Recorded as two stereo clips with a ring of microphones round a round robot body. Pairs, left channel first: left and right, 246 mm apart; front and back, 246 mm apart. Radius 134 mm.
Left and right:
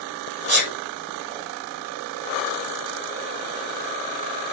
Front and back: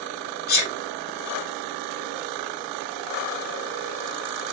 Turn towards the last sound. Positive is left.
turn(degrees=-45)